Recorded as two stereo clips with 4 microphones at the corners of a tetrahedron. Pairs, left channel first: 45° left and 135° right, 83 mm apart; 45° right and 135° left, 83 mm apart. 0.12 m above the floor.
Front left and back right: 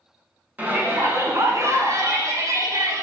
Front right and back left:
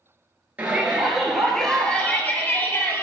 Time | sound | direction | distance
0.6 | a shout | straight behind | 1.2 m